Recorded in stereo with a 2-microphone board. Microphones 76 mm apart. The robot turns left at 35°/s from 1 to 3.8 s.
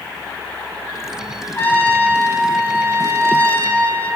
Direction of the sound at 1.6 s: 25° left (ahead or behind).